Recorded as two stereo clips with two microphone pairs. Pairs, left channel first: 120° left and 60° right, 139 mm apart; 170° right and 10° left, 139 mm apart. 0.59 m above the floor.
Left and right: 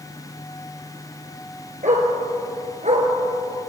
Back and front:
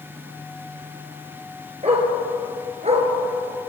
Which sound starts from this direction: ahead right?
A dog barking, at 1.8 s.